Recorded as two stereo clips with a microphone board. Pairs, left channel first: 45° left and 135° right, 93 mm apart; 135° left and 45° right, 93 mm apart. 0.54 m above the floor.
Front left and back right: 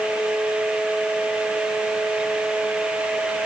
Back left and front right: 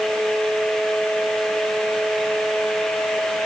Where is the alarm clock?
No alarm clock in this recording.